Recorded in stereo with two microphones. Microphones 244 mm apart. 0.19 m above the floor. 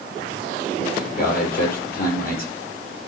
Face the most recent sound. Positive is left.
turn(degrees=40)  # may be behind; listen again after turning